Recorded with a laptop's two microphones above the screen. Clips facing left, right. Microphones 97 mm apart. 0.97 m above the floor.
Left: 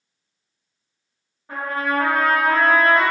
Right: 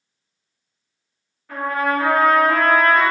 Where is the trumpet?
25° left (ahead or behind), 1.0 m.